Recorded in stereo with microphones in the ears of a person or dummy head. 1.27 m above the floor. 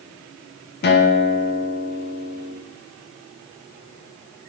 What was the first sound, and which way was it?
A guitar, 50° left (ahead or behind).